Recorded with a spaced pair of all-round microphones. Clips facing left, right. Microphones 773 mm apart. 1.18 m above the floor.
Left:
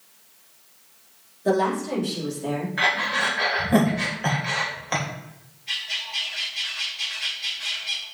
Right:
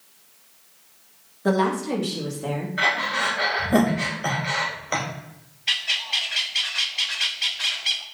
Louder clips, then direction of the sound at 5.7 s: Right 4 dB; 70° right (ahead or behind).